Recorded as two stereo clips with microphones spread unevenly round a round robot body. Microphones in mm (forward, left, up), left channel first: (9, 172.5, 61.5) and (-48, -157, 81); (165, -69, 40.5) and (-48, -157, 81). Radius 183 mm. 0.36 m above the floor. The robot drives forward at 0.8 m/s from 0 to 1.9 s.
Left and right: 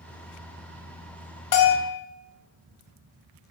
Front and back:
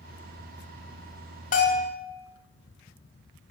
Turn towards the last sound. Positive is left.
turn(degrees=80)